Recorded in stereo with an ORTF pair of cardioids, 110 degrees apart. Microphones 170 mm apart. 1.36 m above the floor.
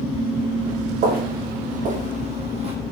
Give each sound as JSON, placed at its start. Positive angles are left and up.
{"t": 1.0, "sound": "footsteps", "azimuth_deg": -70, "distance_m": 4.5}